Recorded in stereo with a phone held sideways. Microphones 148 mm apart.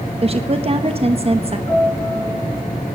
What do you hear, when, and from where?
0.2 s a woman speaking: 40° right (ahead or behind), 0.9 m
1.7 s a piano: 25° left (ahead or behind), 5 m